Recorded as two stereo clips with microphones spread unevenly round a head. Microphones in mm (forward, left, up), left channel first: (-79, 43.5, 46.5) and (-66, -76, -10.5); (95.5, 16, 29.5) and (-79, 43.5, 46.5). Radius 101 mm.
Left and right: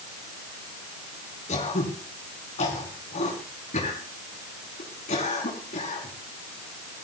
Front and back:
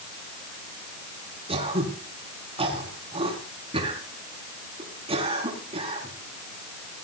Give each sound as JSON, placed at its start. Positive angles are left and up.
{"t": 1.5, "sound": "throat clearing", "azimuth_deg": 115, "distance_m": 5.5}